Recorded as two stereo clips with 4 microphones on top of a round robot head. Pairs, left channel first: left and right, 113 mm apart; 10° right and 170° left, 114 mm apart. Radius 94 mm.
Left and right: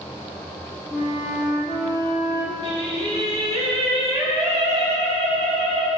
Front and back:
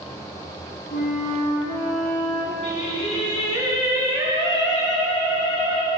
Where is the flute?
Straight ahead, 5.5 m.